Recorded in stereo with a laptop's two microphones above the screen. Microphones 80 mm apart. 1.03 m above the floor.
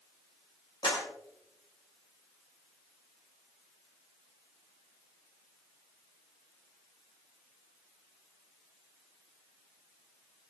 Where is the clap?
60° left (ahead or behind), 6.5 m.